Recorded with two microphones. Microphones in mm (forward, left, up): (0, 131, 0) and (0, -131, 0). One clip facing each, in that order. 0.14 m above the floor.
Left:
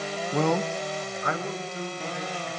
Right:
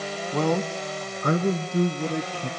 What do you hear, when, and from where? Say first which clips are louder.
0.3 s a man speaking: right 1 dB; 5° left (ahead or behind), 1.3 m; by 2.5 s 70° right (ahead or behind), 3.5 m